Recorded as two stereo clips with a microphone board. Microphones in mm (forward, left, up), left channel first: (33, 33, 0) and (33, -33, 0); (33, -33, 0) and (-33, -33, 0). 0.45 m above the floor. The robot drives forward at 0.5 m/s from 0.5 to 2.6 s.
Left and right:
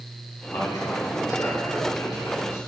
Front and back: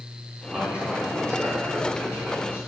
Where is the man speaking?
110° left, 3 m; by 2.6 s 125° left, 3.5 m.